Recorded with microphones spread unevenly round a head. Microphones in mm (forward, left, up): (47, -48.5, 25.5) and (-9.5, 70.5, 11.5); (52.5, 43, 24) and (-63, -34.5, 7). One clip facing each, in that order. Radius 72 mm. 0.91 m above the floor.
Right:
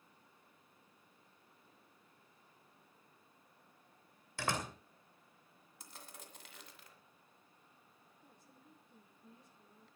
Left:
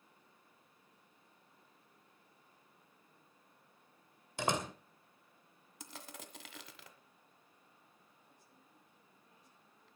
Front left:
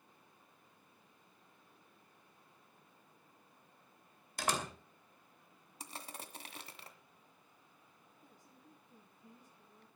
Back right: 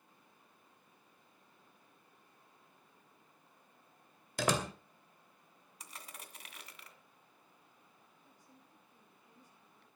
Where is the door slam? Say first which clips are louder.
Left 3 dB, back right 5 dB; 170° right, 2.5 m.